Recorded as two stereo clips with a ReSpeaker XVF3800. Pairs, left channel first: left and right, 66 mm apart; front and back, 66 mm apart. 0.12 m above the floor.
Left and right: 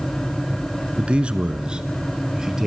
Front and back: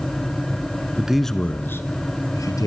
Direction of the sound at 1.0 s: 135° right.